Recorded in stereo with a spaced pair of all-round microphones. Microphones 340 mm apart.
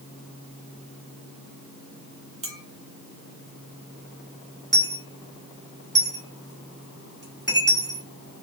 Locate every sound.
2.4 s a clink: 60° right (ahead or behind), 1.2 m
4.7 s a dropped coin: 30° right (ahead or behind), 1.3 m